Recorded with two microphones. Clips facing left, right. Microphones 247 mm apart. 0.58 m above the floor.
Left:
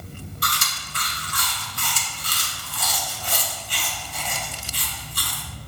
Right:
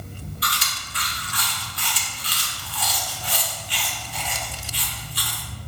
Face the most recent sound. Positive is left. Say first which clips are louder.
# left 1 dB
turn(degrees=50)  # may be behind; listen again after turning